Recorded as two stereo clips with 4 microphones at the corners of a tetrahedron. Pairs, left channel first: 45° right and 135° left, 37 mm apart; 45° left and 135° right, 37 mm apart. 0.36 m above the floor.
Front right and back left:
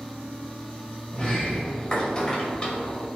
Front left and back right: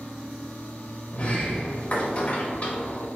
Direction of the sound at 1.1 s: 10° left.